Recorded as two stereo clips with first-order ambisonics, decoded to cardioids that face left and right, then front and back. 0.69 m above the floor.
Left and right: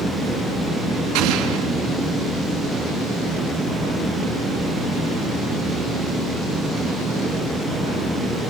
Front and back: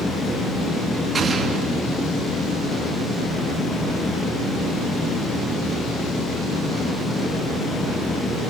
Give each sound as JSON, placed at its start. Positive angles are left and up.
{"t": 1.1, "sound": "an explosion", "azimuth_deg": -110, "distance_m": 2.5}